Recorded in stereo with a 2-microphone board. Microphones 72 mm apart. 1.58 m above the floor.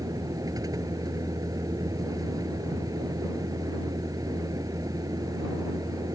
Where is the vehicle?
60° right (ahead or behind).